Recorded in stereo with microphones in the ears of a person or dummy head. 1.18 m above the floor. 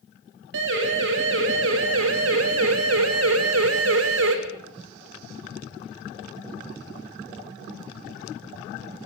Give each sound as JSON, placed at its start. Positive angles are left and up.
{"t": 0.5, "sound": "a siren", "side_deg": -75, "distance_m": 6.5}